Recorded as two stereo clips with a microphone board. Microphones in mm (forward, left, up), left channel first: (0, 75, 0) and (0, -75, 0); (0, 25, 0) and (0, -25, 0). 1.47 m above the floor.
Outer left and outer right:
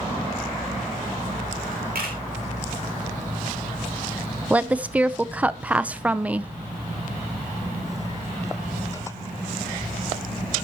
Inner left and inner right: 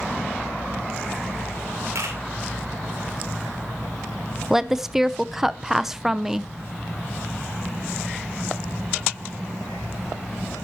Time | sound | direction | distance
1.9 | a camera shutter | 80° right | 3 m
4.5 | a woman speaking | 10° right (ahead or behind) | 0.6 m